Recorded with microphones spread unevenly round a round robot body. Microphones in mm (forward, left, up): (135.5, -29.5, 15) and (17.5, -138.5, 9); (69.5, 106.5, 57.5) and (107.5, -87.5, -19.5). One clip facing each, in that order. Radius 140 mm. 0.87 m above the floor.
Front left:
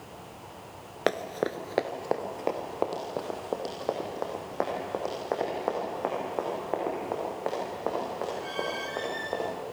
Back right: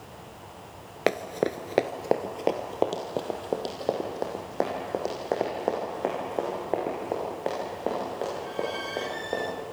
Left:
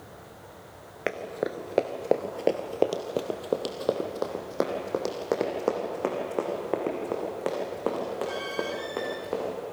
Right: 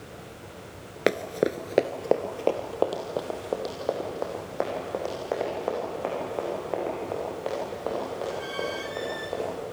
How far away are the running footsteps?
About 0.8 m.